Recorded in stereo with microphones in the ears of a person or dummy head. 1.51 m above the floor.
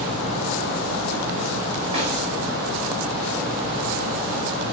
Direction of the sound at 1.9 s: 35° right (ahead or behind).